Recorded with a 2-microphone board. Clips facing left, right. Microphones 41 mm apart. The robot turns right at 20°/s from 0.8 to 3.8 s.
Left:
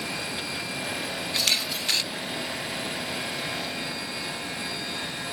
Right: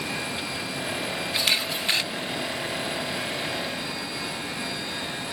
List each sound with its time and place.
1.3 s a camera shutter: 20° right (ahead or behind); by 2.1 s 25° right (ahead or behind)